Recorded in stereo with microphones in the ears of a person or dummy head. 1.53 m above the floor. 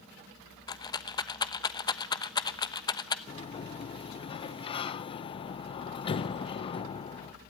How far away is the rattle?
About 0.9 m.